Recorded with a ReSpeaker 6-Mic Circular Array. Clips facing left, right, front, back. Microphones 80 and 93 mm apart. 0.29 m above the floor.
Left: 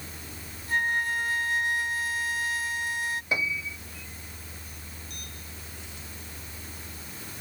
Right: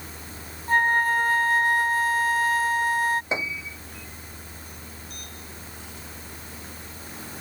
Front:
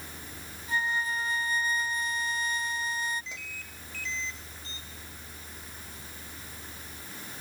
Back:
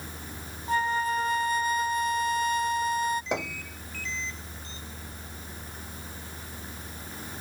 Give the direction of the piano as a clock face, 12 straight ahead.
5 o'clock.